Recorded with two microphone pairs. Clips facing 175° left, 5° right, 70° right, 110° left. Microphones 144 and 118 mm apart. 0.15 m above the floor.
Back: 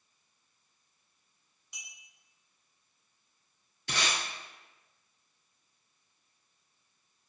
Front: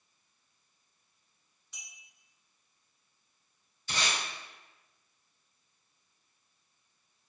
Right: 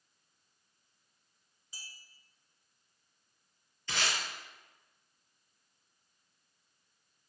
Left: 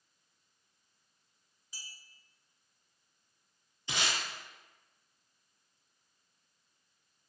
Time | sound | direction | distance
1.7 | a clink | 120° right | 1.1 m
3.9 | tape being pulled | straight behind | 0.8 m